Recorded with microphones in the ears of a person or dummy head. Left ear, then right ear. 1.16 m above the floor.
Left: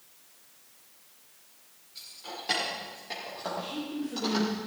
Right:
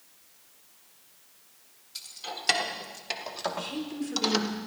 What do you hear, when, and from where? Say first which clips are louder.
1.9 s keys jangling: right 3 dB; 60° right (ahead or behind), 3 m; by 4.5 s 40° right (ahead or behind), 1.3 m
3.6 s a woman speaking: right 1 dB; 80° right, 3.5 m